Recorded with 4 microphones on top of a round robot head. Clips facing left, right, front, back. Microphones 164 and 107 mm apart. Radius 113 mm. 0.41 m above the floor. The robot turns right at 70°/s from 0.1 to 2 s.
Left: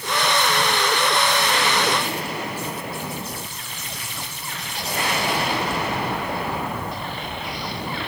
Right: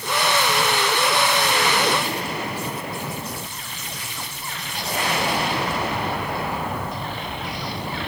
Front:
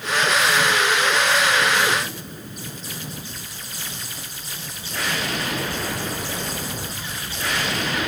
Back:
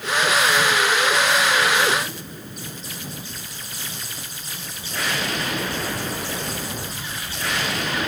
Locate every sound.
Only background noise.